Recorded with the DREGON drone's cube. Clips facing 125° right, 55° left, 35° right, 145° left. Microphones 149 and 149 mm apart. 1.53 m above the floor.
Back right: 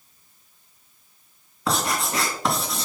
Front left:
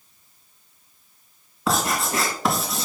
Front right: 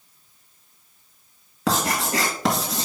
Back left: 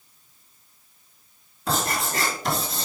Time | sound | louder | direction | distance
1.7 | writing | front left 2 dB, front right 3 dB | 35° right | 3 m